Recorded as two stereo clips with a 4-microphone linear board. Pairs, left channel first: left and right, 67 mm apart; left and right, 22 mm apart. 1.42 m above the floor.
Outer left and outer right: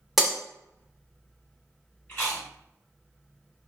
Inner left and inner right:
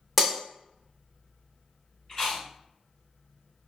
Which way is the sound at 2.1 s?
30° left (ahead or behind).